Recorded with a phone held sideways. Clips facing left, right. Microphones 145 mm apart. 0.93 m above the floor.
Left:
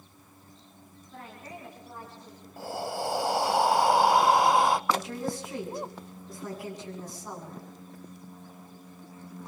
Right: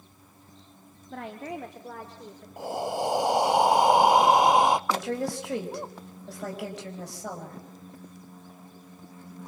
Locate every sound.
1.1 s a woman speaking: 70° right (ahead or behind), 1.9 m; by 2.5 s 85° right, 4 m
2.6 s breathing: 20° right (ahead or behind), 0.7 m
4.9 s a woman speaking: 85° right, 6 m